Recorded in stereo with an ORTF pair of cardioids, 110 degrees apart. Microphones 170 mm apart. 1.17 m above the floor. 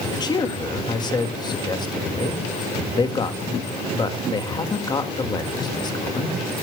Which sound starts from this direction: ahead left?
A man speaking, at 0.1 s.